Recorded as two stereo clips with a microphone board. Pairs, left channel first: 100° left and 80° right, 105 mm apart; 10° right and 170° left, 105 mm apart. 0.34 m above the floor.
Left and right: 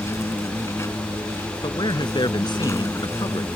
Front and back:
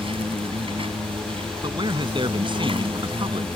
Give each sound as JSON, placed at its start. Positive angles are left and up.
{"t": 0.0, "sound": "an insect", "azimuth_deg": 160}
{"t": 1.6, "sound": "a man speaking", "azimuth_deg": 140}